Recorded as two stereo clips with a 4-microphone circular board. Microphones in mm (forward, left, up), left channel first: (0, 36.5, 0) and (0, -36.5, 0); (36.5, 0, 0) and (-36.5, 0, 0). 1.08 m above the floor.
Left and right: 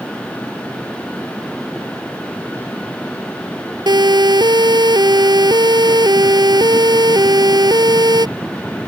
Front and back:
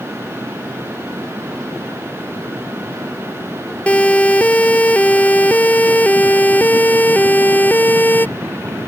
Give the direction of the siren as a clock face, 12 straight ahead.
2 o'clock.